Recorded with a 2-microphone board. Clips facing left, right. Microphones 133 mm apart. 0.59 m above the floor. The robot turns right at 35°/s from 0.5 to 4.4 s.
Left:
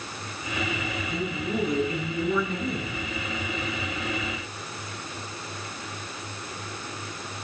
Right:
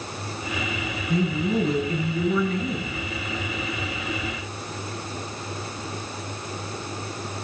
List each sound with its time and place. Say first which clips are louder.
1.1 s a man speaking: right 8 dB; 50° right, 6.5 m; by 3.0 s 15° left, 6.5 m